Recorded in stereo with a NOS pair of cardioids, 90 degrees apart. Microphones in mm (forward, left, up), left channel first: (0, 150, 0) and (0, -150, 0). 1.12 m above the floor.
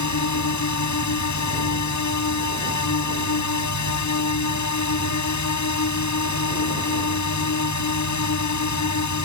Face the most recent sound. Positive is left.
turn(degrees=65)